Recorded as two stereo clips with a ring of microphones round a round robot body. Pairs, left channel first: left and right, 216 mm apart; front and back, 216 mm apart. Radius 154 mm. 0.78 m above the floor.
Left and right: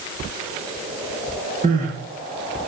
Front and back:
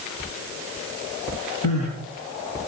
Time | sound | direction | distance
1.6 | crying | 35° right | 5.5 m